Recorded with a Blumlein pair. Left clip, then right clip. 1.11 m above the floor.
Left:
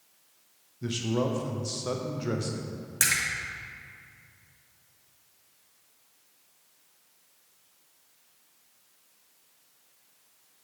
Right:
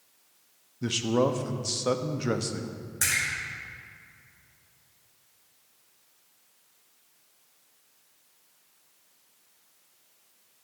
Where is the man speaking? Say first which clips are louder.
Right 4 dB; 15° right, 0.6 m.